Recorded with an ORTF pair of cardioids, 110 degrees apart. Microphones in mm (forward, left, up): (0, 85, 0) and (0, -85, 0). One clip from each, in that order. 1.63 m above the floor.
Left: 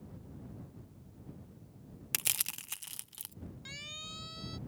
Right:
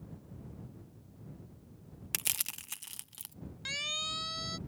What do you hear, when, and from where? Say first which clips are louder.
2.1 s crushing: left 1 dB; 5° left
3.6 s a siren: right 10 dB; 50° right